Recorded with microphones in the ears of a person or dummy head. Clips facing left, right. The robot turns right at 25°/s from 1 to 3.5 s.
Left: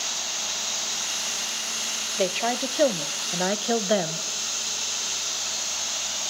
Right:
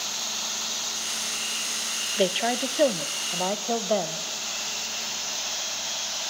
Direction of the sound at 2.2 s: 15° right.